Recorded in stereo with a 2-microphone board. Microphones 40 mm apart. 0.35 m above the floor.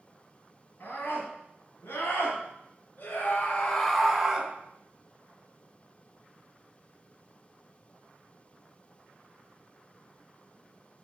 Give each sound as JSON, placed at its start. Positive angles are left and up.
{"t": 0.8, "sound": "a scream", "side_deg": 60, "distance_m": 4.0}